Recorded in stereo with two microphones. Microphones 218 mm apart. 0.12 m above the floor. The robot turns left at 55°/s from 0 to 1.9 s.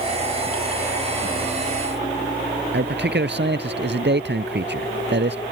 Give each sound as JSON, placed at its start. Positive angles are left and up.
{"t": 2.7, "sound": "a man speaking", "side_deg": -55}